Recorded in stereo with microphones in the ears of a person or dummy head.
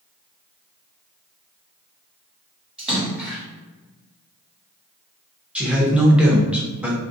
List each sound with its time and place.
2.8 s a splash: 5° right (ahead or behind), 1.5 m
5.5 s a man speaking: 5° right (ahead or behind), 0.6 m